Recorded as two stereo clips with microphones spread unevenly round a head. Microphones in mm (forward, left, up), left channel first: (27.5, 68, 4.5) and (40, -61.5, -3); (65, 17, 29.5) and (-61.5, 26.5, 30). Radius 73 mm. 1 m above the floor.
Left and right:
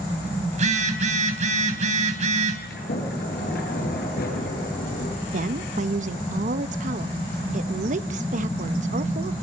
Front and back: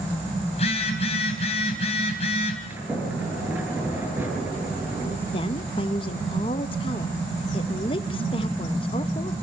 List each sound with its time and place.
0.5 s a phone buzzing: 55° right, 3.5 m
2.7 s a sliding door: 100° left, 8 m
5.3 s a woman speaking: 55° right, 0.7 m